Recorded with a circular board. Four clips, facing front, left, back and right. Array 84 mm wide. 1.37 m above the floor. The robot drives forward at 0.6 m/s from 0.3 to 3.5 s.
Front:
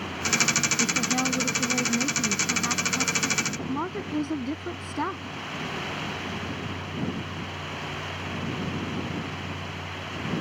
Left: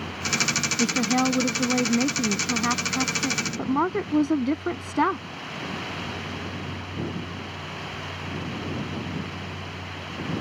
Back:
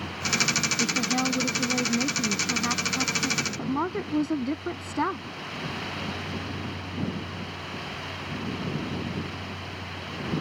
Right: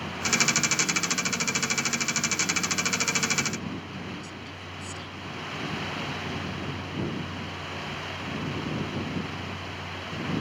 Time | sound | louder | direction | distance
0.8 | a woman speaking | left 8 dB, back 1 dB | 90° left | ?